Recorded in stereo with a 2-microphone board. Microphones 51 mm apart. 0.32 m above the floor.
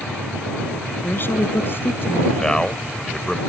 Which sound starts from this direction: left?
A woman speaking, at 1.0 s.